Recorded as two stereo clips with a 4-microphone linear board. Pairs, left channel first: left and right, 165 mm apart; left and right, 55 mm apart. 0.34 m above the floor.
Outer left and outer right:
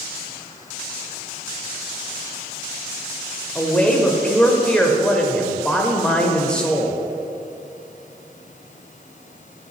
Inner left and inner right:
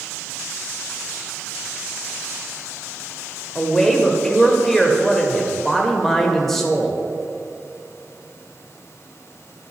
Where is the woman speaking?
5° left (ahead or behind), 0.8 m.